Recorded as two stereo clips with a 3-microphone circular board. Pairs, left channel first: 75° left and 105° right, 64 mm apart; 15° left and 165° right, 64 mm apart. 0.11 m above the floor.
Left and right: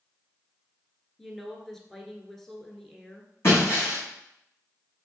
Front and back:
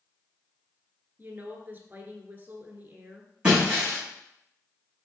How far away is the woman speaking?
About 1.5 m.